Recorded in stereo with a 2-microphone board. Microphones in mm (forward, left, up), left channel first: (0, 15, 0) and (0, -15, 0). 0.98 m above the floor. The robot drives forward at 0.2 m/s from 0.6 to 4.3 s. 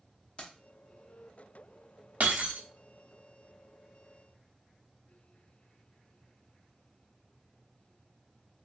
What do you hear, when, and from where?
0.4 s keys jangling: 35° left (ahead or behind), 0.8 m
2.2 s breaking glass: 60° right (ahead or behind), 0.8 m; by 2.6 s 65° right (ahead or behind), 0.8 m